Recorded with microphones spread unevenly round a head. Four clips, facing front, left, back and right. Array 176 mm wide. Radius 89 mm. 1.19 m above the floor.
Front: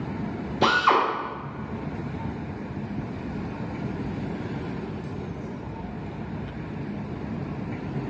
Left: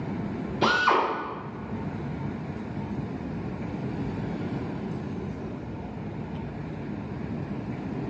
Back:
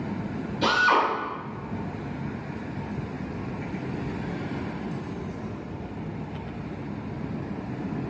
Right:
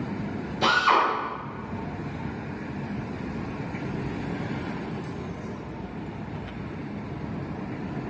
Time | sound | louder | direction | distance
0.6 | a drill | right 1 dB, front 1 dB | straight ahead | 0.8 m